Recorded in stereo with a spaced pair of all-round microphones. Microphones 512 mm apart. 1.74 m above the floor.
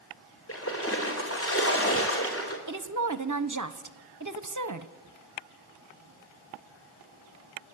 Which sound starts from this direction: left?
A splash, at 0.5 s.